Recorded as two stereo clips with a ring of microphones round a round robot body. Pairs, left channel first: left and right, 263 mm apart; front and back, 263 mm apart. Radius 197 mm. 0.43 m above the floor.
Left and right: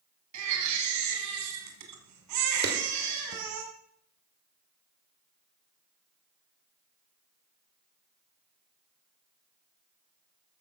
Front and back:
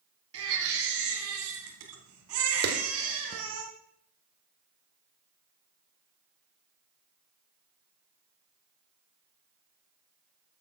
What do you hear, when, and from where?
0.3 s a baby crying: 130° right, 1.3 m
2.6 s a clap: 135° right, 1.7 m